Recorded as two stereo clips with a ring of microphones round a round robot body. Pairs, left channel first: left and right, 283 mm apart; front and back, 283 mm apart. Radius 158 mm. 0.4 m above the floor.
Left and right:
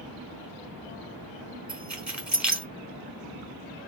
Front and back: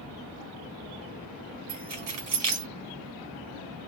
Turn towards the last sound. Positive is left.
turn(degrees=-175)